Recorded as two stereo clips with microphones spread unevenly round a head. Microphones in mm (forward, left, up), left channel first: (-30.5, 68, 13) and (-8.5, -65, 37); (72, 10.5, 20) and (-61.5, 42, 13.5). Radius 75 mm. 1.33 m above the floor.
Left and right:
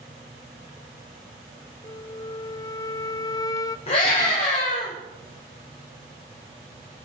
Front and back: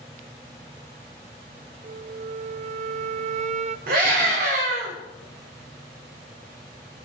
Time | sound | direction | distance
1.8 | a flute | 150° left | 0.7 m
3.9 | a scream | 145° left | 5.5 m